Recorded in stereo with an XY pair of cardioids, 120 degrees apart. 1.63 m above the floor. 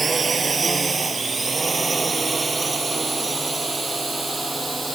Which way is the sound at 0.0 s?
25° right.